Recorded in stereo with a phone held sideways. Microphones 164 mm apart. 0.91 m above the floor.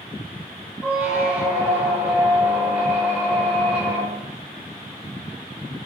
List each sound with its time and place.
0.8 s a squeak: 10° right (ahead or behind), 1.2 m